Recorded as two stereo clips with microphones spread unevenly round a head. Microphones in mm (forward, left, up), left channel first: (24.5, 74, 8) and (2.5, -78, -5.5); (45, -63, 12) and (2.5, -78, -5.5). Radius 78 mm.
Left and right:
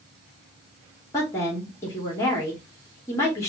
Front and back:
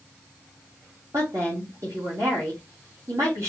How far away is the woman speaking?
About 2.5 m.